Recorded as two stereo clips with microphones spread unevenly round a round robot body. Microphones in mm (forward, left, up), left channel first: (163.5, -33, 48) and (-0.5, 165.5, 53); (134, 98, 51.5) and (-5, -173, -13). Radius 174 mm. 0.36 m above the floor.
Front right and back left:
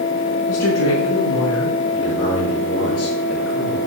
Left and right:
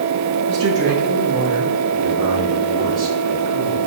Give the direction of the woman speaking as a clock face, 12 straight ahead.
3 o'clock.